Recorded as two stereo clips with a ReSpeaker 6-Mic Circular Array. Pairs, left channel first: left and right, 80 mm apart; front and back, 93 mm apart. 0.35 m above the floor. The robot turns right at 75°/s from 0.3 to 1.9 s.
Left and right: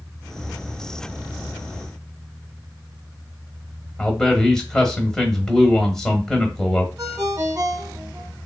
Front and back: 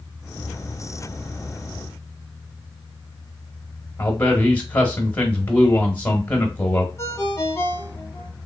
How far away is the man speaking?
About 0.8 m.